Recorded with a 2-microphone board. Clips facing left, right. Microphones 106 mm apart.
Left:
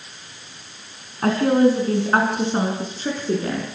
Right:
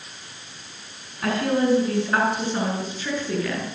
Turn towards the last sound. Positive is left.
turn(degrees=35)  # may be behind; listen again after turning